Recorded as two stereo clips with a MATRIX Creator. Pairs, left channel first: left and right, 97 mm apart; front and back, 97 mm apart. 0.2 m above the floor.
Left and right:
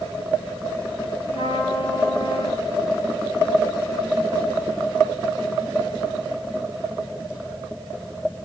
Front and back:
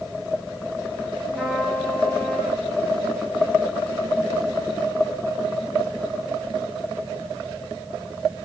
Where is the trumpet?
90° left, 3.5 m.